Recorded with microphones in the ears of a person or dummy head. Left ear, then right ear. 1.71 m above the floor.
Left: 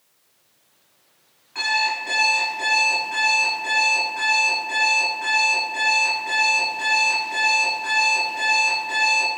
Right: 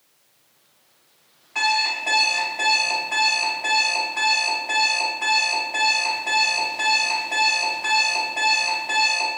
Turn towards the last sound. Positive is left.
turn(degrees=-30)  # may be behind; listen again after turning